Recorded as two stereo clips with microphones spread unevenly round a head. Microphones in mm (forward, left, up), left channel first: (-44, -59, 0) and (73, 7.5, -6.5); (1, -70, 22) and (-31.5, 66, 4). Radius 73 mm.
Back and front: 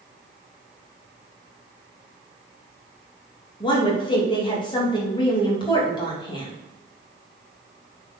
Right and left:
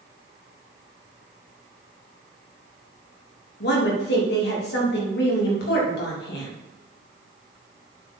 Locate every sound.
3.6 s a woman speaking: 90° right, 3 m